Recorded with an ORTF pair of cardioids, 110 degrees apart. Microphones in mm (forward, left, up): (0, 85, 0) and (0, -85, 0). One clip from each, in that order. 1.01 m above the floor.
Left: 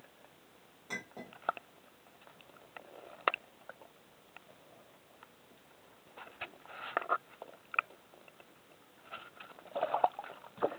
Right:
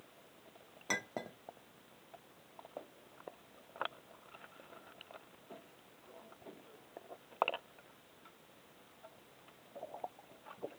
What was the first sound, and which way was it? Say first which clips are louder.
A clink: right 4 dB; 65° right.